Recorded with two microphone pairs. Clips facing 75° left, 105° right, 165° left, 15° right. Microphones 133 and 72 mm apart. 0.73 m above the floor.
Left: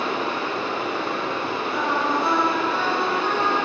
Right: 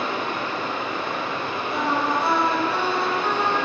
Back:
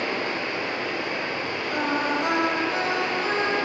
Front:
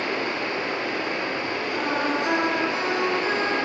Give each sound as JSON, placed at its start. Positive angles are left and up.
{"t": 0.0, "sound": "running water", "azimuth_deg": 25, "distance_m": 2.5}
{"t": 1.7, "sound": "singing", "azimuth_deg": -150, "distance_m": 3.5}